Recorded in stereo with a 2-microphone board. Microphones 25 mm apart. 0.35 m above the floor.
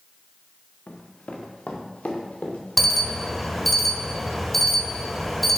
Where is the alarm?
5° left (ahead or behind), 1.0 m.